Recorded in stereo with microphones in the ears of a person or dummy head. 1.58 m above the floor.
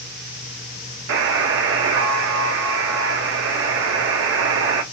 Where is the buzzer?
60° right (ahead or behind), 0.9 m.